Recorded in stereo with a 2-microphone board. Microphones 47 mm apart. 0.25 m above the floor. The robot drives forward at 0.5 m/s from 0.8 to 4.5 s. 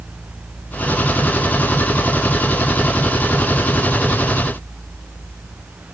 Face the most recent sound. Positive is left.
No sound to turn to.